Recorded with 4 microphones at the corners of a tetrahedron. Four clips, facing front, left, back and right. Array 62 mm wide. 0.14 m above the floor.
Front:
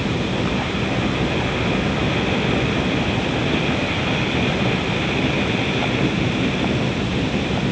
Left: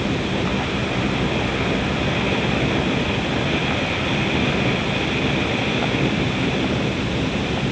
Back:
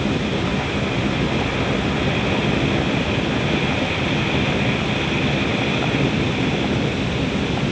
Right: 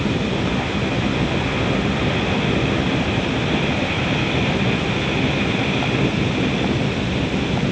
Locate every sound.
Only background noise.